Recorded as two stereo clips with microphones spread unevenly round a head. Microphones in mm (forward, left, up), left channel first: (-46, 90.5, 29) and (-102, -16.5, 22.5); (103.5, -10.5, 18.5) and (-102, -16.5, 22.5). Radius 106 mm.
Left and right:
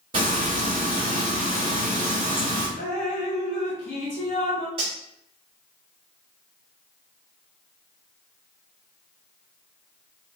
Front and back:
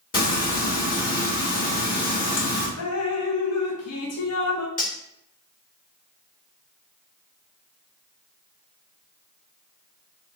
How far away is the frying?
About 2 m.